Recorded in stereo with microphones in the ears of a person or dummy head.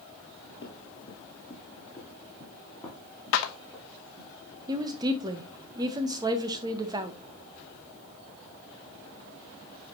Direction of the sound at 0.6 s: 30° left (ahead or behind).